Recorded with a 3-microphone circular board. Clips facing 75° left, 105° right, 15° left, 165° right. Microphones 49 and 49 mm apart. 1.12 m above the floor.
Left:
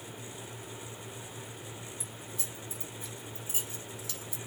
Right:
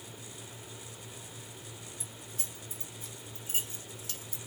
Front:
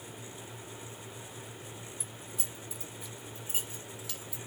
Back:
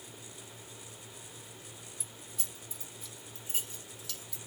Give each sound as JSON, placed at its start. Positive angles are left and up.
{"t": 2.0, "sound": "keys jangling", "azimuth_deg": -70, "distance_m": 2.0}